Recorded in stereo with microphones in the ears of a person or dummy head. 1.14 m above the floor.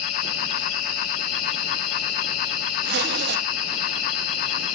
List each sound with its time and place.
0.0 s an insect: 75° left (ahead or behind), 3 m
2.8 s a zipper: 55° right (ahead or behind), 1.1 m